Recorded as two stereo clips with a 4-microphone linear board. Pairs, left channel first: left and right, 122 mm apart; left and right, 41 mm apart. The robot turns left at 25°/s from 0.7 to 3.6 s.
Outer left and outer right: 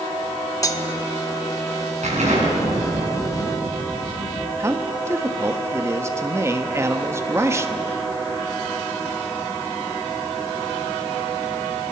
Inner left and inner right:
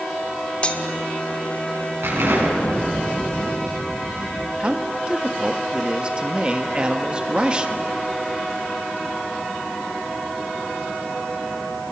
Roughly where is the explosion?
Right.